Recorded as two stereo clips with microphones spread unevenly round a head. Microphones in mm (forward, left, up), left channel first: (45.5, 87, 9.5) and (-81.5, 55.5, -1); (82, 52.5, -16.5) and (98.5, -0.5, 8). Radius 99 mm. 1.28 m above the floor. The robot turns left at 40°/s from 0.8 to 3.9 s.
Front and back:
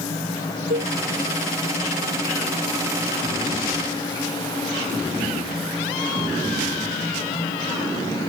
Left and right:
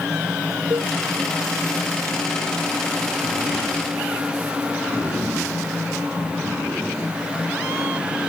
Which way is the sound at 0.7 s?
120° right.